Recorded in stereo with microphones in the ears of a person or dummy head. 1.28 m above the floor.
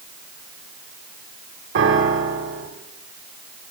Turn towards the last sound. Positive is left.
turn(degrees=-75)  # may be behind; listen again after turning